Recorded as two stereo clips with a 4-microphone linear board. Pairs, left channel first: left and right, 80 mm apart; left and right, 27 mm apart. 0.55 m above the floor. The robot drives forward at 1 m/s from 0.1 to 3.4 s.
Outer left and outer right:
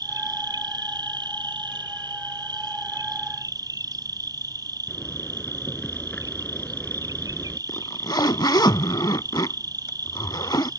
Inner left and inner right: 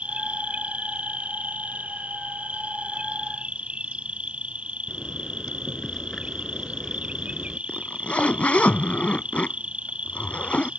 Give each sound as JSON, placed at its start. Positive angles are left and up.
{"t": 0.0, "sound": "an insect", "side_deg": -55}
{"t": 4.9, "sound": "a zipper", "side_deg": 15}
{"t": 7.7, "sound": "a zipper", "side_deg": 60}